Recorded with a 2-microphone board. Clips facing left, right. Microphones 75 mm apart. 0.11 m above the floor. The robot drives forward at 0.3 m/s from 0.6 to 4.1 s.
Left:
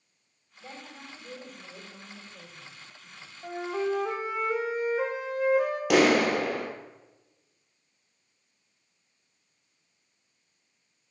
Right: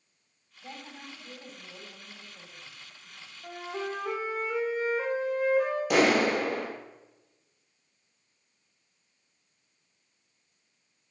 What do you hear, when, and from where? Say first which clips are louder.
0.6 s a woman speaking: even; 50° left (ahead or behind), 6 m; by 3.3 s 45° left (ahead or behind), 7 m
3.4 s a flute: left 6 dB; 75° left (ahead or behind), 2.5 m; by 5.8 s 70° left (ahead or behind), 2.5 m
5.9 s a clap: left 2 dB; 60° left (ahead or behind), 2.5 m